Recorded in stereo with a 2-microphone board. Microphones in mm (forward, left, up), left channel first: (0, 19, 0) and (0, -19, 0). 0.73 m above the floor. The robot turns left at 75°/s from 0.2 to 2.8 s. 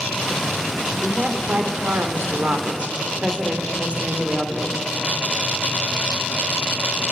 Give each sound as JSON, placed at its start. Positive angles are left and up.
{"t": 1.0, "sound": "a woman speaking", "azimuth_deg": -10, "distance_m": 2.5}